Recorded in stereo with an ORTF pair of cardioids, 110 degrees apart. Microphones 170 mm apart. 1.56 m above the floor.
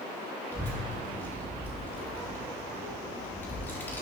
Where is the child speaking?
10° left, 2.5 m.